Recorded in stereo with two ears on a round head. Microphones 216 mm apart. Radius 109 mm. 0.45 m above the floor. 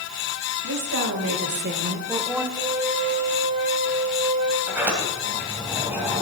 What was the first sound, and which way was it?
A woman speaking, 65° right (ahead or behind).